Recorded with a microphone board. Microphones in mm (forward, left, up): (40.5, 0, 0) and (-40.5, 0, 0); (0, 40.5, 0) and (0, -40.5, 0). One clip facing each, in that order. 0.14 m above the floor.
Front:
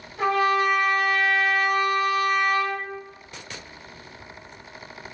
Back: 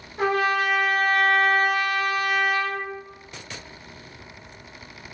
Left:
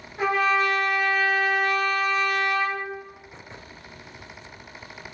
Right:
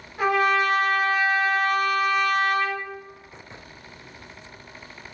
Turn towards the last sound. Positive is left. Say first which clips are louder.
# front 1 dB, right 1 dB
turn(degrees=-170)